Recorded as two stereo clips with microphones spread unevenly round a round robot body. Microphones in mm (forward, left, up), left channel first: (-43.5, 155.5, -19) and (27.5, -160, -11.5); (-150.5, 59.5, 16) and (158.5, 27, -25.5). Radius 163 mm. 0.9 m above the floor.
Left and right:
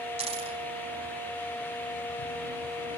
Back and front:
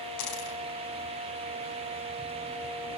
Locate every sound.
0.2 s a dropped coin: 150° right, 4 m